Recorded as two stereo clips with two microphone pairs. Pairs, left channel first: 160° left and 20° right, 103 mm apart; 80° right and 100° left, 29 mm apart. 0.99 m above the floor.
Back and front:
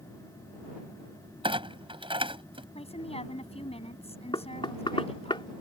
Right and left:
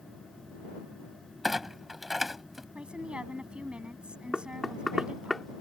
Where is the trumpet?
I don't hear a trumpet.